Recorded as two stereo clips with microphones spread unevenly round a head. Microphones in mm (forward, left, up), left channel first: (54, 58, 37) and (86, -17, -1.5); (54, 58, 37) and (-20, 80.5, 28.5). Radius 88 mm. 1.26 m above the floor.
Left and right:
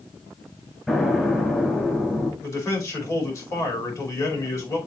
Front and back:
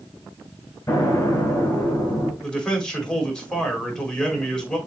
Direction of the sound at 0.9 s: 30° left.